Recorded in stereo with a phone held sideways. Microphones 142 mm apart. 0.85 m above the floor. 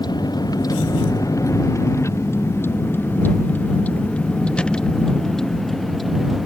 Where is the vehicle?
30° left (ahead or behind); by 6.5 s centre (ahead or behind).